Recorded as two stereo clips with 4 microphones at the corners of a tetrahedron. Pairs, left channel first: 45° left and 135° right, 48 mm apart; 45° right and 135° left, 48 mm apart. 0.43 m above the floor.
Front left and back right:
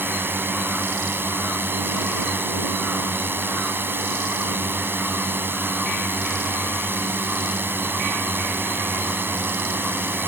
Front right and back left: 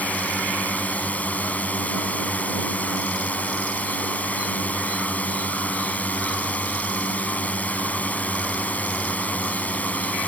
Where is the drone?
100° right.